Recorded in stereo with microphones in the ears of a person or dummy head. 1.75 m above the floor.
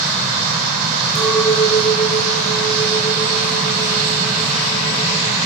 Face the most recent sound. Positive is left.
turn(degrees=25)  # may be behind; listen again after turning